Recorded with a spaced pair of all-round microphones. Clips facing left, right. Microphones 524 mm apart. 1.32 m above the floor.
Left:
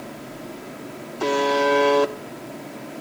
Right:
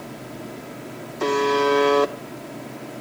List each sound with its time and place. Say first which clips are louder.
1.2 s a buzzer: right 1 dB; 5° left (ahead or behind), 0.9 m